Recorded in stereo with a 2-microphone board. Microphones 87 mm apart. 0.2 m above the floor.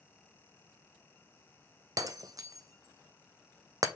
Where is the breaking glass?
45° right (ahead or behind), 0.8 m.